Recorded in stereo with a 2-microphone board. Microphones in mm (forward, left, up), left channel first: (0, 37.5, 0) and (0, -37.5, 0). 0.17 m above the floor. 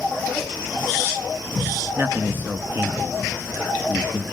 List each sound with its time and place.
1.9 s a man speaking: 30° right (ahead or behind), 2 m